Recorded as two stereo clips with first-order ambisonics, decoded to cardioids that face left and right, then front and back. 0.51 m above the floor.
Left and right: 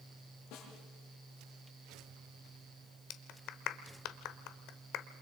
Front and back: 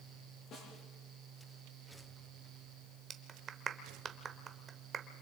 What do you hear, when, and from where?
0.5 s a snare drum: 55° left, 9 m
3.1 s a clap: 120° left, 1.1 m